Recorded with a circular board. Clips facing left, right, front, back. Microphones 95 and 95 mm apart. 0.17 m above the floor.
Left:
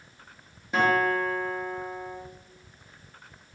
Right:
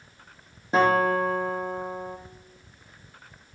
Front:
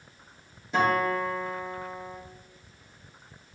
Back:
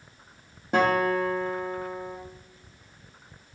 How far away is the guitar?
About 2.5 m.